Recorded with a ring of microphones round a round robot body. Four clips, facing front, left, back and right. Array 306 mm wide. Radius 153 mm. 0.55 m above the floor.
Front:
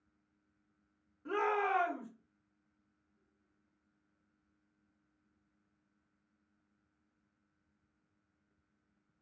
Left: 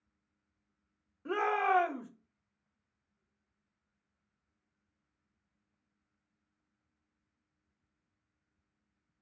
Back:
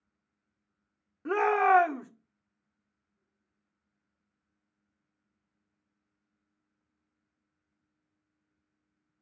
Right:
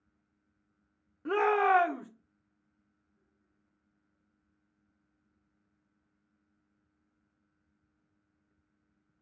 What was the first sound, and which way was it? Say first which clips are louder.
A shout: right 4 dB, back 9 dB; 145° right.